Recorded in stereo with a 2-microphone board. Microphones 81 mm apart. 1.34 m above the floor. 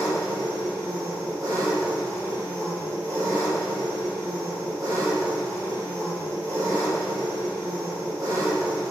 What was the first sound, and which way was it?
An engine running, 35° right (ahead or behind).